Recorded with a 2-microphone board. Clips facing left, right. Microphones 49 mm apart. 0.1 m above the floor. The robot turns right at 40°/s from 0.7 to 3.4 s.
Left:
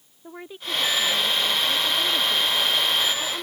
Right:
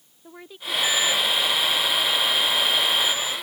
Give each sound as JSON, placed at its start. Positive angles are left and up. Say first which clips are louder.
{"t": 0.2, "sound": "a woman speaking", "louder": "left 1 dB", "azimuth_deg": 15}